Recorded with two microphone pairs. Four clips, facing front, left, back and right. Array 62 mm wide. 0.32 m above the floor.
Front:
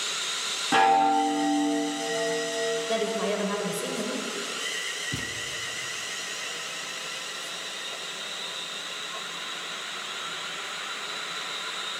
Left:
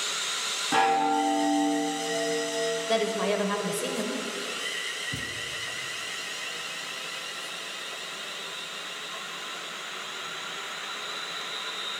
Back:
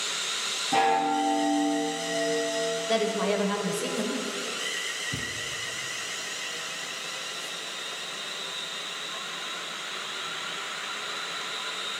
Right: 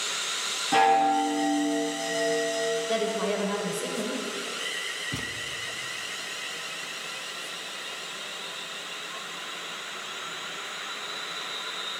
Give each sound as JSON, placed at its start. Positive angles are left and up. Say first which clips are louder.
{"t": 0.7, "sound": "a chime", "louder": "right 2 dB, front 3 dB", "azimuth_deg": 20, "distance_m": 2.5}
{"t": 2.9, "sound": "a woman speaking", "louder": "left 1 dB, back 1 dB", "azimuth_deg": 85, "distance_m": 1.0}
{"t": 5.1, "sound": "a thud", "louder": "right 1 dB, even", "azimuth_deg": -70, "distance_m": 0.8}